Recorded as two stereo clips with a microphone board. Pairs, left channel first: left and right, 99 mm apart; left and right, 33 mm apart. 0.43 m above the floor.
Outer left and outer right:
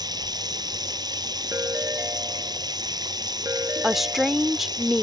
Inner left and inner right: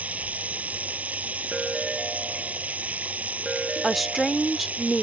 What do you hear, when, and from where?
0.0 s running water: 40° right (ahead or behind)
1.5 s a ringtone: 25° right (ahead or behind)
3.8 s a woman speaking: centre (ahead or behind)